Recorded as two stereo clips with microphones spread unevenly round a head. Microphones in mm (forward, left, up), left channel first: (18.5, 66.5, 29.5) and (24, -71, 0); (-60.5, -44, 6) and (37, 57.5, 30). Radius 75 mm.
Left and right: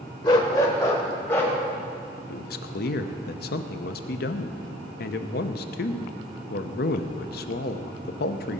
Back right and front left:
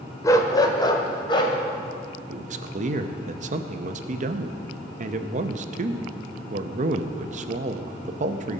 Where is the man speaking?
85° left, 0.8 m.